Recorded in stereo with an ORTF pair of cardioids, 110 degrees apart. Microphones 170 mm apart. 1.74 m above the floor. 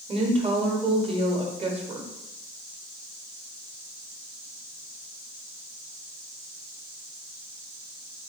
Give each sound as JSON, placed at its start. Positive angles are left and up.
{"t": 0.1, "sound": "a woman speaking", "azimuth_deg": -35, "distance_m": 1.1}